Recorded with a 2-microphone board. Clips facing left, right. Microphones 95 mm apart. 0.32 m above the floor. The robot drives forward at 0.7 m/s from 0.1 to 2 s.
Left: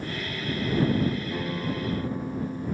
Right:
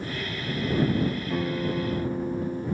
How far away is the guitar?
About 0.7 m.